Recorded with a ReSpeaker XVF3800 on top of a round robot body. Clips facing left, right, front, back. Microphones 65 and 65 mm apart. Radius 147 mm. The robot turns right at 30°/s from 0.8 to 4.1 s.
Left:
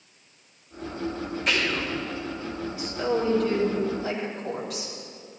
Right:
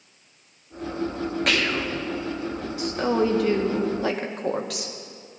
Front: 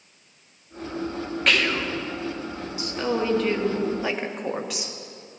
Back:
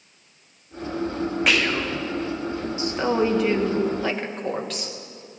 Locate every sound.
1.5 s whispering: 100° right, 1.8 m; by 1.9 s 85° right, 1.8 m
2.8 s a woman speaking: 120° right, 1.4 m; by 4.9 s 80° right, 1.4 m